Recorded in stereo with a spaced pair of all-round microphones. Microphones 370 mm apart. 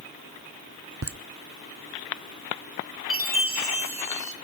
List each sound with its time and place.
1.0 s laughter: 40° right (ahead or behind), 0.9 m
3.1 s a chime: 70° right (ahead or behind), 2 m